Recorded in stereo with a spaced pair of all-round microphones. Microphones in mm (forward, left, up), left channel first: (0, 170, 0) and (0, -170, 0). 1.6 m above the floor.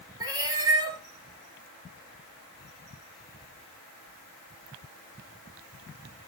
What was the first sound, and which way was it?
A cat meowing, 10° right (ahead or behind).